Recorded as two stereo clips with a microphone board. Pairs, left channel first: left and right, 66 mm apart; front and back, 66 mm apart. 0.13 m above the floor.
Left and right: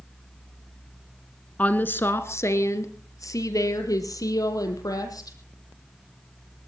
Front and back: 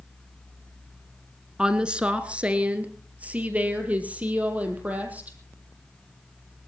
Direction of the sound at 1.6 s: 120° left.